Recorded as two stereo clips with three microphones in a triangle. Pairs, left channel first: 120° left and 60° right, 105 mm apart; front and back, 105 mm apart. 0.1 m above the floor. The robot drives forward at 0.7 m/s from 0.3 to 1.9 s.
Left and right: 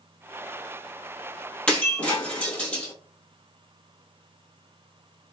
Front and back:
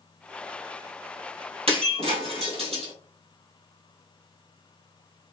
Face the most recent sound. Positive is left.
turn(degrees=-165)